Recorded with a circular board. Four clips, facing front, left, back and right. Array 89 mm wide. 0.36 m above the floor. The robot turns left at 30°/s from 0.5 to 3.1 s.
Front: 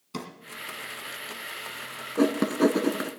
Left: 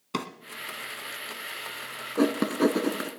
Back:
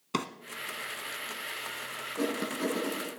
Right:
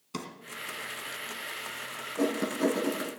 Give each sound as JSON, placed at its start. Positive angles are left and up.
{"t": 0.1, "sound": "a drawer", "azimuth_deg": 140, "distance_m": 0.9}
{"t": 2.2, "sound": "writing", "azimuth_deg": 55, "distance_m": 0.9}